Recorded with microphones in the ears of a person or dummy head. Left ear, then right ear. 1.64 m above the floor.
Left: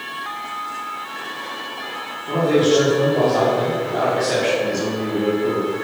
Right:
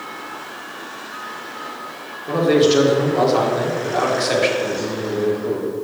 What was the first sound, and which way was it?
A man speaking, 35° right (ahead or behind).